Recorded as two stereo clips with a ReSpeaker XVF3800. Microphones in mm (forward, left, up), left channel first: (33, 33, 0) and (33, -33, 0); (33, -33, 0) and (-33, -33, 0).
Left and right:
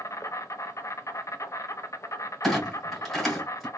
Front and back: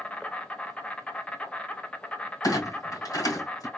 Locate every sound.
0.0 s an insect: 65° left, 0.8 m
2.4 s a clunk: straight ahead, 3 m